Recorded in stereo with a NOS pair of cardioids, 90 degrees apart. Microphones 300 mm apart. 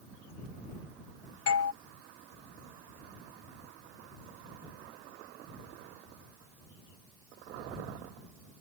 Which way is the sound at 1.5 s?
50° left.